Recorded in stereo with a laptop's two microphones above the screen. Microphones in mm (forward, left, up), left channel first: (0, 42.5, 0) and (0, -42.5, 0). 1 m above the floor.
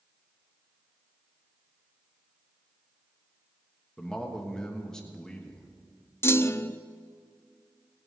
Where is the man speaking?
10° left (ahead or behind), 1.3 m.